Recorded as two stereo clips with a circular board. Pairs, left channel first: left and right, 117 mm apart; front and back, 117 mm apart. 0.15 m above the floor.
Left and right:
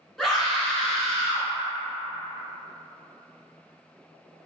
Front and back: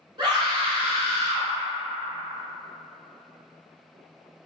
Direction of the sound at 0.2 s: 175° left.